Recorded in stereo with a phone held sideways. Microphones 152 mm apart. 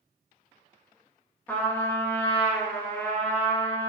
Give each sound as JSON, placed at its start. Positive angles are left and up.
{"t": 1.5, "sound": "a trumpet", "side_deg": 10, "distance_m": 1.2}